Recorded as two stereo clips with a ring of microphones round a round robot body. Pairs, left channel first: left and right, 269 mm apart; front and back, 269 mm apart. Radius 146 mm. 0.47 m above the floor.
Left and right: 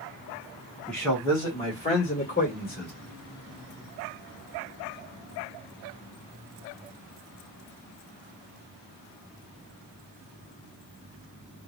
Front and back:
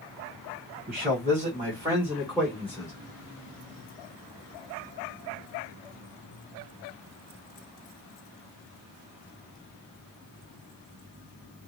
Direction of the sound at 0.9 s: Straight behind.